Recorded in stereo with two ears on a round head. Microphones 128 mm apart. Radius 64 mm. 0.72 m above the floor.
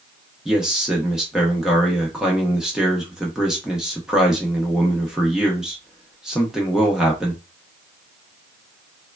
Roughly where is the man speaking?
Centre.